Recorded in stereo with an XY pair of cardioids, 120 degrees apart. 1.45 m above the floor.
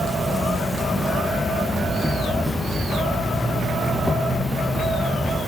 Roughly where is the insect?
Ahead.